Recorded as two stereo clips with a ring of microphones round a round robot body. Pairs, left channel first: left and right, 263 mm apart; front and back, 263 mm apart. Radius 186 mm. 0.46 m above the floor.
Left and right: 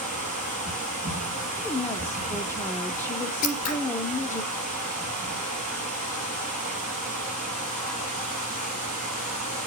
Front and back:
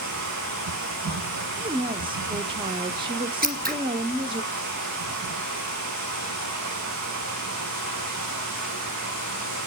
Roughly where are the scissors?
Behind left.